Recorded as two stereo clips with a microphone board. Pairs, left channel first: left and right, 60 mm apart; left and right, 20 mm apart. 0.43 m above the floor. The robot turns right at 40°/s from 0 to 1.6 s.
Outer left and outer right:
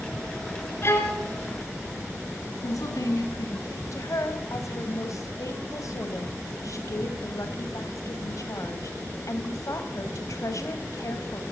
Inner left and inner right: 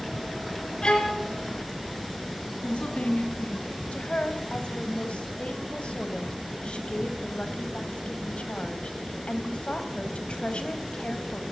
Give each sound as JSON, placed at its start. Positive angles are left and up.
{"t": 0.8, "sound": "a violin", "side_deg": 45, "distance_m": 4.0}
{"t": 2.6, "sound": "a woman speaking", "side_deg": 80, "distance_m": 4.5}
{"t": 3.9, "sound": "a woman speaking", "side_deg": 65, "distance_m": 3.0}